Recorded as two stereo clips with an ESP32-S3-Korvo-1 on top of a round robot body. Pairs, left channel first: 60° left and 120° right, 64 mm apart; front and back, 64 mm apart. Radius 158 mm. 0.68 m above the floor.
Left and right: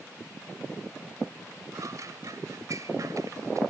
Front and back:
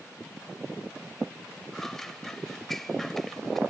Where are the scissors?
85° right.